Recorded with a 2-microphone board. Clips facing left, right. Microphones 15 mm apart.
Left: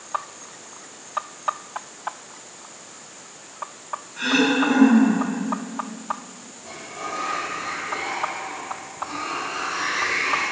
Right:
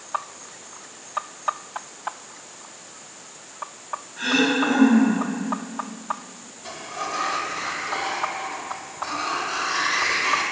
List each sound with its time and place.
4.2 s throat clearing: 30° left (ahead or behind), 2 m
6.6 s a sliding door: 55° right (ahead or behind), 1.6 m